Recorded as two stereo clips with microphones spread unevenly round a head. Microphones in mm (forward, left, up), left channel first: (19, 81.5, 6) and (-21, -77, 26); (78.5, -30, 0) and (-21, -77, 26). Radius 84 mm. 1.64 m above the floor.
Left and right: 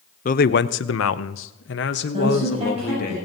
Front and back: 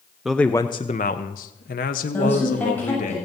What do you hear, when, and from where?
0.2 s a man speaking: 125° left, 0.7 m; by 3.1 s 35° left, 1.7 m
2.1 s a woman speaking: 50° right, 7.5 m